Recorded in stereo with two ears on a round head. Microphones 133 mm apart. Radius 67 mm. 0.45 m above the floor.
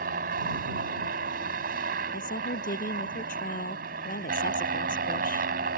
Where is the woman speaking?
55° left (ahead or behind).